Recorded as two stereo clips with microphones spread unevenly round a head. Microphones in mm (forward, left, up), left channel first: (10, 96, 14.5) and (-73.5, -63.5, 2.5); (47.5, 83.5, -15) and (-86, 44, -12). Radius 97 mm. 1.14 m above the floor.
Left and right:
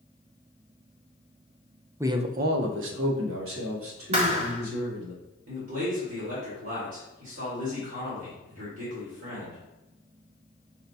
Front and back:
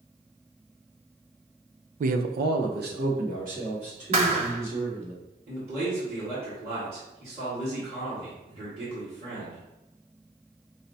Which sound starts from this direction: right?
A man speaking, at 5.5 s.